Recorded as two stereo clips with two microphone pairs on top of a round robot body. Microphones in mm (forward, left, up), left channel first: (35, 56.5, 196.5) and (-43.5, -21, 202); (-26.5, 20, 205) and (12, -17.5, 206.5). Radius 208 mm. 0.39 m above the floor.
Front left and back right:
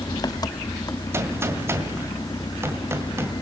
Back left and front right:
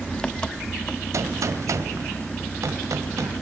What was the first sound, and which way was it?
An engine running, 70° left.